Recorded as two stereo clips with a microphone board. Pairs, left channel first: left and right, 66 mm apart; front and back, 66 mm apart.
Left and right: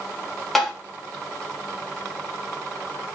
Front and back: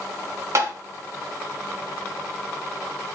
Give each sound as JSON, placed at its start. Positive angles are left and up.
{"t": 0.6, "sound": "tapping", "azimuth_deg": 180, "distance_m": 1.2}